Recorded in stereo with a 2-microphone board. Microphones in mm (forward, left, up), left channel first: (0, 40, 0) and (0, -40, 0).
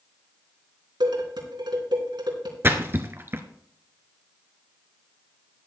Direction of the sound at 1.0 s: 80° right.